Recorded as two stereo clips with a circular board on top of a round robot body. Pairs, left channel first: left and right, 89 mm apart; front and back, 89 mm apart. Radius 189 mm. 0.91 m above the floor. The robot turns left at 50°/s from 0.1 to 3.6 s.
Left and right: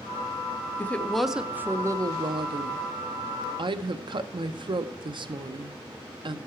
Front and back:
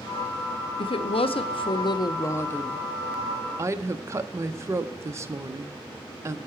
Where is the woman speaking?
20° left, 0.7 m; by 6.4 s 120° right, 0.7 m.